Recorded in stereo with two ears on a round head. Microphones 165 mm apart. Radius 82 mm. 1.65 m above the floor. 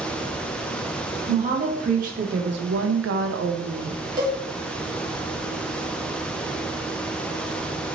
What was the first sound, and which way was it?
A woman speaking, 35° right (ahead or behind).